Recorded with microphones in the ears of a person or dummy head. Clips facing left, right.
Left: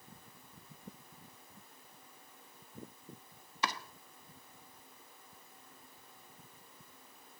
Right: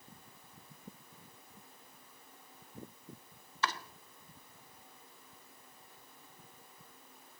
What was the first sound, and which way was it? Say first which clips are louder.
Chopping: right 1 dB; 20° left (ahead or behind).